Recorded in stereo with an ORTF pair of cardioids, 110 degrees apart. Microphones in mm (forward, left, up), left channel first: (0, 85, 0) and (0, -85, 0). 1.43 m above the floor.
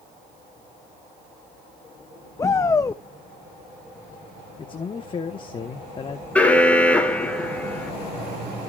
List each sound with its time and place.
2.4 s a shout: 20° left, 0.6 m
4.6 s a man speaking: 30° left, 1.2 m
6.3 s an alarm: 10° left, 2.0 m